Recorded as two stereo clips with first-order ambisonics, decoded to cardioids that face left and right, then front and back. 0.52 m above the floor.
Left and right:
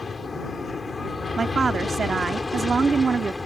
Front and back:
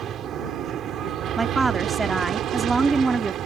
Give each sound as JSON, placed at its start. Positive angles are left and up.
{"t": 0.0, "sound": "an aircraft", "azimuth_deg": 155}
{"t": 1.4, "sound": "a woman speaking", "azimuth_deg": -125}